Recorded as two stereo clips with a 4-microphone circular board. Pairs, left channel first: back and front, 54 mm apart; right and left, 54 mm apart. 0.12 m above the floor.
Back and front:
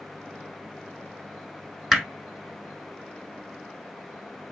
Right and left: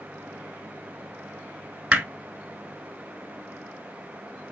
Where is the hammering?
80° left, 1.0 m.